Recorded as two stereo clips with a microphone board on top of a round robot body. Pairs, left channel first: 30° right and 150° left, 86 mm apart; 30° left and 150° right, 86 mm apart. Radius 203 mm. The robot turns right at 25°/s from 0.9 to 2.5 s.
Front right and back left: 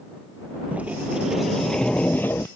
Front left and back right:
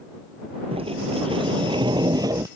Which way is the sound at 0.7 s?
135° right.